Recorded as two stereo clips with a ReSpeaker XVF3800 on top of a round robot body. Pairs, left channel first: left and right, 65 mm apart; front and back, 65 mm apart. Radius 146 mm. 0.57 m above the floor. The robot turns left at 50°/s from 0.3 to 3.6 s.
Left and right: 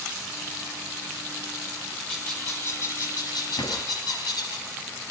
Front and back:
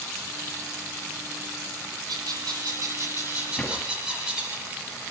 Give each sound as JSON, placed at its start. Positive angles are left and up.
{"t": 2.1, "sound": "a bird", "azimuth_deg": 175, "distance_m": 6.0}
{"t": 3.6, "sound": "a drawer", "azimuth_deg": 90, "distance_m": 9.0}